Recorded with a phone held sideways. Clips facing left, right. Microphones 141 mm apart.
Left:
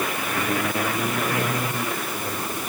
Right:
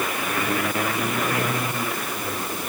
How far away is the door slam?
I don't hear a door slam.